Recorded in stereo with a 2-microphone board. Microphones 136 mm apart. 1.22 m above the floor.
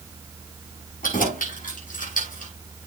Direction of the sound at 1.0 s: 85° left.